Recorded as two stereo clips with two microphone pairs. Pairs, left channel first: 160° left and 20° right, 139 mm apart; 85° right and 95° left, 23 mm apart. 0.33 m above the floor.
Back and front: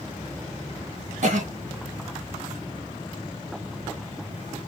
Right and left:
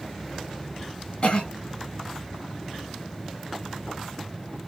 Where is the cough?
35° right, 2.5 m.